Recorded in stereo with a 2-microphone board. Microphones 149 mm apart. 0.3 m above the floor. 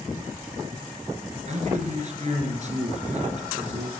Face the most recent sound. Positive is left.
turn(degrees=-50)  # may be behind; listen again after turning